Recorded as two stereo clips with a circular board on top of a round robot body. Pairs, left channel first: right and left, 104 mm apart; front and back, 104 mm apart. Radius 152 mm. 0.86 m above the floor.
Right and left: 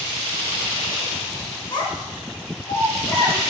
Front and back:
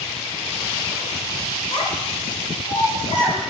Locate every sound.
1.7 s a child speaking: 45° right, 1.8 m; by 3.4 s 35° right, 4.5 m